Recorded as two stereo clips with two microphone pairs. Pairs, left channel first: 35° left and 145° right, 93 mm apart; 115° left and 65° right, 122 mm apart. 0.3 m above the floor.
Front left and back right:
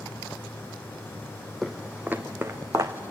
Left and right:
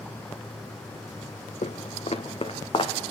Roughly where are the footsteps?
Behind left.